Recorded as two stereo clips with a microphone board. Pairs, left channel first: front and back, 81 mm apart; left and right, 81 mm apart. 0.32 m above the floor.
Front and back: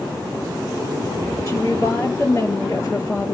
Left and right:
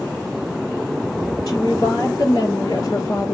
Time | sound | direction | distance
1.5 | a woman speaking | 50° left | 5.5 m